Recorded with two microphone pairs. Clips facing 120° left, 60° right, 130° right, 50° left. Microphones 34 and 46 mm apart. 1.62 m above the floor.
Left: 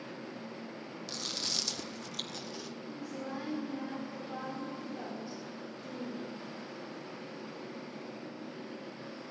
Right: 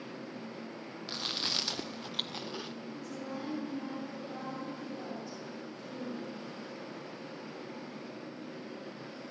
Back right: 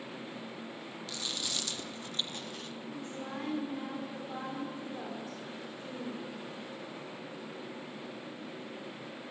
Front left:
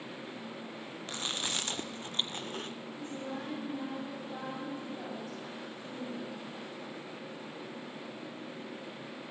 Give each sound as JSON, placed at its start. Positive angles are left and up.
{"t": 1.1, "sound": "chewing", "azimuth_deg": 0, "distance_m": 0.9}
{"t": 2.9, "sound": "a woman speaking", "azimuth_deg": -170, "distance_m": 6.0}